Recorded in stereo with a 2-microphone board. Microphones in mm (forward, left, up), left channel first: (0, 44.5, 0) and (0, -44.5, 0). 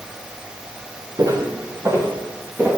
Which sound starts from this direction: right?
Footsteps, at 1.2 s.